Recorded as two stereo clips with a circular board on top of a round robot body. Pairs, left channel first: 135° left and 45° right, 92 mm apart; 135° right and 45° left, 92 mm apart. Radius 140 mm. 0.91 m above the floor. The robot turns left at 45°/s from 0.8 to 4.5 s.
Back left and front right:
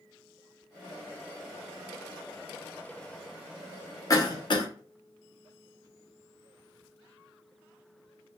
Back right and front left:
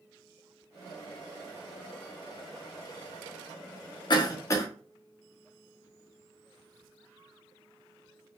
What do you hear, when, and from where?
4.1 s a cough: 175° right, 0.7 m; by 4.7 s 170° left, 0.7 m